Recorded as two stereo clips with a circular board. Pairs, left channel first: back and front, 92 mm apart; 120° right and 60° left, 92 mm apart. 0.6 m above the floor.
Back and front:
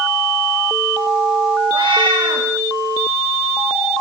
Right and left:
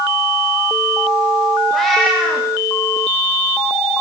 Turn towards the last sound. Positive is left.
turn(degrees=-30)